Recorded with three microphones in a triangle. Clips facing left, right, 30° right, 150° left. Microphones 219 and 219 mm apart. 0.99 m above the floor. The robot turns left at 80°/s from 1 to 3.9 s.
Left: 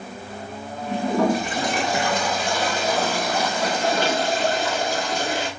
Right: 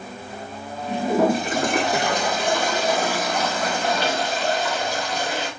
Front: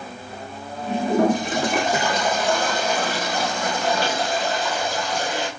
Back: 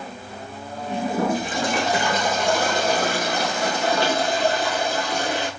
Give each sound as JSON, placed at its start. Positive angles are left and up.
{"t": 0.9, "sound": "a toilet flushing", "azimuth_deg": 0, "distance_m": 1.8}